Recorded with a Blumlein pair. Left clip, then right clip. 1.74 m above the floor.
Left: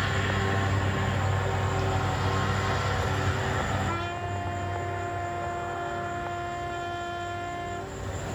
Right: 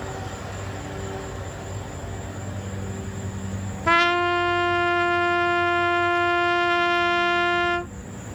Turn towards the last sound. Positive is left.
turn(degrees=-40)